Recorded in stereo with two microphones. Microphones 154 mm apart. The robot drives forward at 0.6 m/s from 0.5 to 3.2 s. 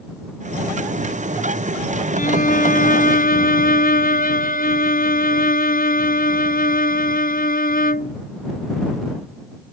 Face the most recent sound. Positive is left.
turn(degrees=70)  # may be behind; listen again after turning